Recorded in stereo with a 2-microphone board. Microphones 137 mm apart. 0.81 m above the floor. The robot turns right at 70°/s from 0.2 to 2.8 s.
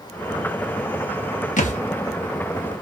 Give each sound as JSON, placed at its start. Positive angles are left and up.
{"t": 1.6, "sound": "a thud", "side_deg": 65, "distance_m": 1.2}